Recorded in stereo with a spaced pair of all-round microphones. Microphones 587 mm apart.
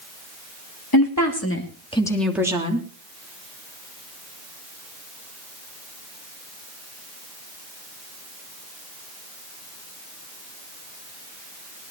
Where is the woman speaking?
35° left (ahead or behind), 2.5 m; by 2.9 s 15° right (ahead or behind), 3 m.